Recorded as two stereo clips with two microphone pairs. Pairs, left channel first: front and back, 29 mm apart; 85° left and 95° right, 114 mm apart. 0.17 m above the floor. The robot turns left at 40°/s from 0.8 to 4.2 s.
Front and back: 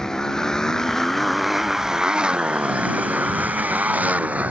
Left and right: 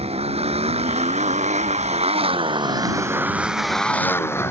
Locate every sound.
0.0 s a motorcycle: 70° right; by 4.5 s 155° left